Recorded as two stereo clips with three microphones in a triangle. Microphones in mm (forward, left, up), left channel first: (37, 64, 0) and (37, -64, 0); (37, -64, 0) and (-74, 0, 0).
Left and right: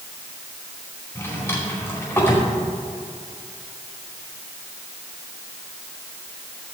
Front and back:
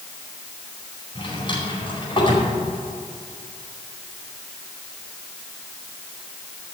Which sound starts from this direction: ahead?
A drawer, at 1.1 s.